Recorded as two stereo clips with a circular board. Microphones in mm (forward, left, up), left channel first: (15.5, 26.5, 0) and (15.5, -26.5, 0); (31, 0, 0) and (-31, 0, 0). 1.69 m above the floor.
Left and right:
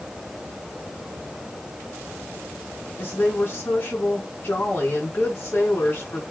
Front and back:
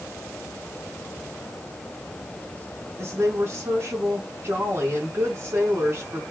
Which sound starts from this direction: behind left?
A woman speaking, at 3.0 s.